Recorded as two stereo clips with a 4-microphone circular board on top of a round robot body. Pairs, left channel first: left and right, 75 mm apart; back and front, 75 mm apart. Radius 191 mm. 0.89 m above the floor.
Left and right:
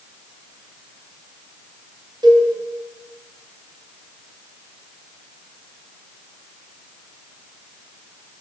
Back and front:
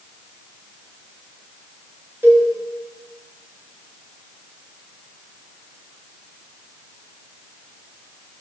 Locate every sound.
2.2 s a cowbell: 65° right, 2.5 m